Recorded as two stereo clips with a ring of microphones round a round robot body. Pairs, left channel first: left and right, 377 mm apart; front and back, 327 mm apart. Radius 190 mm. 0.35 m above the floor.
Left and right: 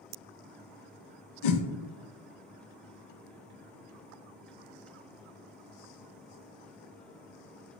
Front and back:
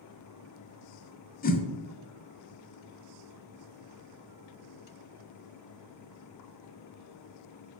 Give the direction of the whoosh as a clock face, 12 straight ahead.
10 o'clock.